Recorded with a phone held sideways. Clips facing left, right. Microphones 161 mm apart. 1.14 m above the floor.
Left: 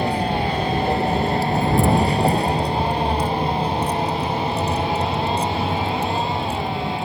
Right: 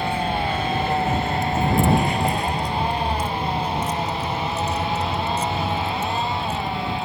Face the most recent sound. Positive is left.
turn(degrees=30)  # may be behind; listen again after turning